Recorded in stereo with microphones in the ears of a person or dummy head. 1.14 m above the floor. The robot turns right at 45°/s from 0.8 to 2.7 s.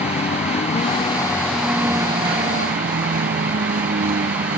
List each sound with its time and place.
0.0 s a vehicle: 145° left; by 4.6 s 130° right